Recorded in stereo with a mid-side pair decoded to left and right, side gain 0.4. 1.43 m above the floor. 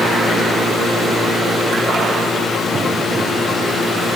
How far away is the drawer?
I don't hear a drawer.